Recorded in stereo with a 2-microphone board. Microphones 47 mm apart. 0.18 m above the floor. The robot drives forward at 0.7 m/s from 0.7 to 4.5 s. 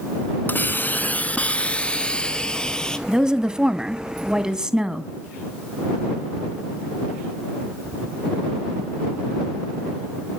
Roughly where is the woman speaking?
Centre.